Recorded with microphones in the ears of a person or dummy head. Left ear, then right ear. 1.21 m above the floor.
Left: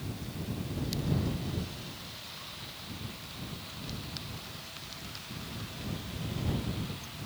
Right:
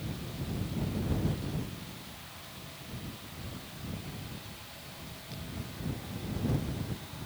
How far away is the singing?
I don't hear singing.